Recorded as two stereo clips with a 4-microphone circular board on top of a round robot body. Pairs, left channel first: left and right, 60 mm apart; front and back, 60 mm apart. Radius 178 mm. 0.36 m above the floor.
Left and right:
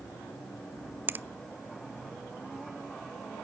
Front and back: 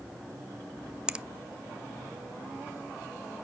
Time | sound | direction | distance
1.1 | a finger snap | 115° right | 0.7 m